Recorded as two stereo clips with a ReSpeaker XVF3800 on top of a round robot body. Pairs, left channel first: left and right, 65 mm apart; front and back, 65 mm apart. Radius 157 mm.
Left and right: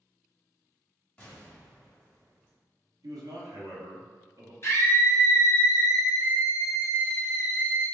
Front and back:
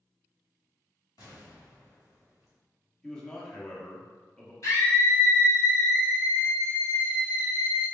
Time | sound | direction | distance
1.2 | an explosion | 25° left | 1.8 m
3.0 | a man speaking | 80° right | 1.3 m
4.6 | a scream | 40° left | 1.8 m